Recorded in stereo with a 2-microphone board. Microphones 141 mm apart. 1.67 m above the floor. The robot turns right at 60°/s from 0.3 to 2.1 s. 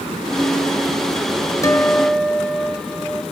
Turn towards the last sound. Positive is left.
turn(degrees=-5)  # may be behind; listen again after turning